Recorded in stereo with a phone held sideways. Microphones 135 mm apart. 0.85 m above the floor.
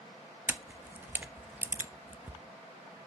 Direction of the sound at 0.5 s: 15° right (ahead or behind).